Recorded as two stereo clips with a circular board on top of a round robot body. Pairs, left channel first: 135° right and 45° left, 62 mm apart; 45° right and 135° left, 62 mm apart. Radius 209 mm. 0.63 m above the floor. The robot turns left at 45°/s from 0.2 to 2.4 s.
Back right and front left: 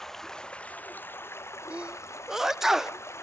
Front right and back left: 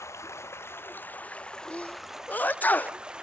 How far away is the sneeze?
About 0.7 m.